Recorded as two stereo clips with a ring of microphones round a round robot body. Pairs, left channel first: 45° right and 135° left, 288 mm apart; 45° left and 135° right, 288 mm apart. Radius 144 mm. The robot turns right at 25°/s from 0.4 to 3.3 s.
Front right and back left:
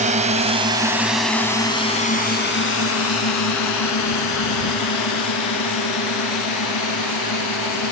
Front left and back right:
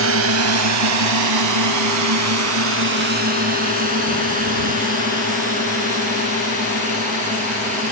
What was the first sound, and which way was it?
A drone, 165° right.